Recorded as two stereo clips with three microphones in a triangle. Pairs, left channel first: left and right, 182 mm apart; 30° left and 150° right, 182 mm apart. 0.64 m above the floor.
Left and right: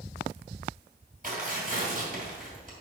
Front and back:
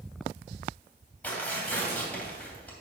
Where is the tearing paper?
50° right, 2.5 m.